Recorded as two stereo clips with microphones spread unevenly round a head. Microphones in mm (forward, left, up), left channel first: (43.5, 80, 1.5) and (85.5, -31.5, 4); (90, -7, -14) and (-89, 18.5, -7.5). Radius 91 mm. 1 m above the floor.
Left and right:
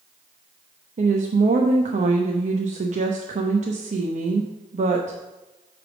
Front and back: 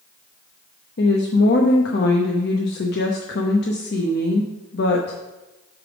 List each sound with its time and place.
1.0 s a woman speaking: 45° right, 0.8 m